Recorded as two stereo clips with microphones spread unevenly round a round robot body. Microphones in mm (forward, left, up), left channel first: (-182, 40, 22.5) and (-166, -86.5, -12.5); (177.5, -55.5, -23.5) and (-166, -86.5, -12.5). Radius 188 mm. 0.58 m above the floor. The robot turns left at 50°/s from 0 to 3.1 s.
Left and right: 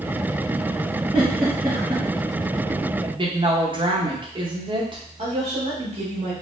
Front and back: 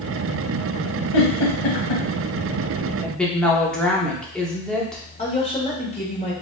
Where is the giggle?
30° left, 1.2 m; by 2.0 s 15° right, 1.2 m.